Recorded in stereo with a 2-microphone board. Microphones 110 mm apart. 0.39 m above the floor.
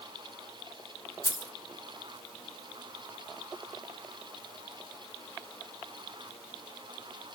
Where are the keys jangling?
35° right (ahead or behind), 0.7 m.